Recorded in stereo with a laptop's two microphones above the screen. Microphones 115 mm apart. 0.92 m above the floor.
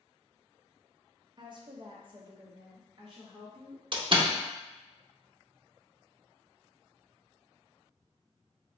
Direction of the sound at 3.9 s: 50° right (ahead or behind).